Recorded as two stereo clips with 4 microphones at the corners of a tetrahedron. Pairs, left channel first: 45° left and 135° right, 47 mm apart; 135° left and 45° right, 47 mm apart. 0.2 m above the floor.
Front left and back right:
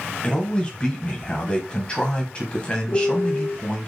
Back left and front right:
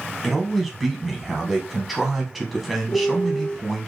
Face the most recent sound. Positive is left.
turn(degrees=65)